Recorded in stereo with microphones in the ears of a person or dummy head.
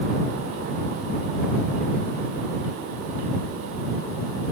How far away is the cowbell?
I don't hear a cowbell.